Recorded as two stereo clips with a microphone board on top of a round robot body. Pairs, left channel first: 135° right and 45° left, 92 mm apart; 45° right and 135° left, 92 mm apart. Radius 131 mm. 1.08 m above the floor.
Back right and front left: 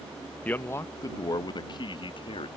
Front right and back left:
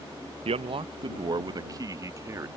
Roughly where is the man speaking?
Behind left.